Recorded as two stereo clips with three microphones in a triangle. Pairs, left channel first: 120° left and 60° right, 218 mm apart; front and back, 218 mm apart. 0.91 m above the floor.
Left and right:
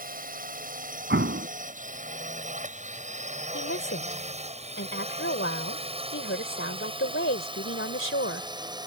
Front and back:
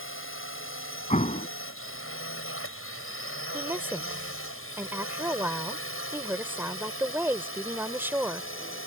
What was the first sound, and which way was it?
A drone, 15° right.